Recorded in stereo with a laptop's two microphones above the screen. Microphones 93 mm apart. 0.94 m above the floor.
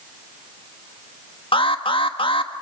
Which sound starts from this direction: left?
An alarm, at 1.5 s.